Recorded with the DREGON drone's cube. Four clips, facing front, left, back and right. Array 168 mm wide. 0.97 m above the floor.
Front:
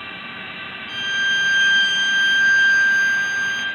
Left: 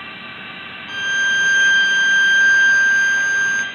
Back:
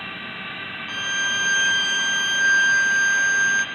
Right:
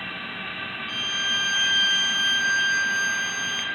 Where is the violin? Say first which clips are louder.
Left 13 dB, front 4 dB; 135° left, 1.4 m.